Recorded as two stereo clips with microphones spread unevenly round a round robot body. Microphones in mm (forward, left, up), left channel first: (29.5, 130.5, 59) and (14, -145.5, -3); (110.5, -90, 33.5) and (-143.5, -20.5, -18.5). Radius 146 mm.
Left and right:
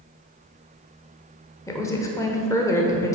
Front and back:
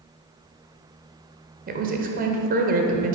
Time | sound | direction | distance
1.7 | a woman speaking | 175° left | 1.0 m